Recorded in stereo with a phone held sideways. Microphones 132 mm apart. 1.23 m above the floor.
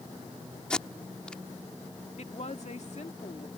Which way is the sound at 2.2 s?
60° left (ahead or behind).